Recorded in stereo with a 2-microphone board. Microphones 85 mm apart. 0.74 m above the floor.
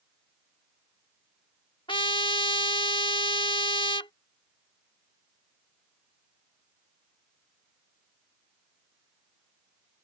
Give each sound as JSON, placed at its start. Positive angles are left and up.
{"t": 1.9, "sound": "a trumpet", "side_deg": 75}